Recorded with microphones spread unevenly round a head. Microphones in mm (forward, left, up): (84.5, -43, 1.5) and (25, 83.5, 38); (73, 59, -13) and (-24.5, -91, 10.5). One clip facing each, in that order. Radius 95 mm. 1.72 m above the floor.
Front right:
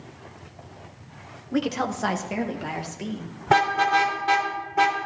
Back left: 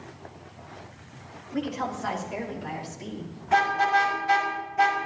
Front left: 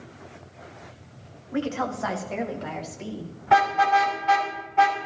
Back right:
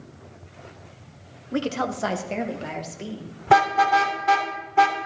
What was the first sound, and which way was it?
A woman speaking, 85° right.